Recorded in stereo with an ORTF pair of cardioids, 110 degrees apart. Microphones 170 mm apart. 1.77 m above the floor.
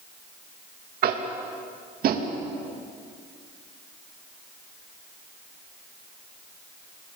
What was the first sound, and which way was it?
Tapping, 55° right.